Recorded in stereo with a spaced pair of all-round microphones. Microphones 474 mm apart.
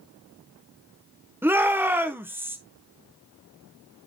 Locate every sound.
1.4 s a shout: 5° right (ahead or behind), 1.1 m